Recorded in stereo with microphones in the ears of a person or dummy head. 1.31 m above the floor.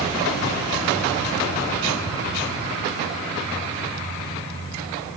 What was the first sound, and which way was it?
Only background noise.